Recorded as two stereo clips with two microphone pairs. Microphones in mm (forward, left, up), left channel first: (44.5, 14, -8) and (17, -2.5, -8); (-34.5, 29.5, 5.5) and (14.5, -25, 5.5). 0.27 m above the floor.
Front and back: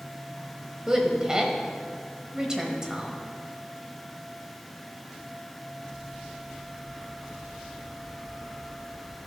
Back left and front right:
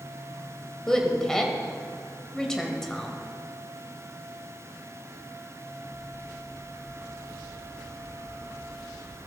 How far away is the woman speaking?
About 1.0 m.